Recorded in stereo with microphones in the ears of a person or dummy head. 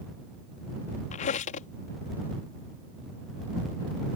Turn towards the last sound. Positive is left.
turn(degrees=40)  # may be behind; listen again after turning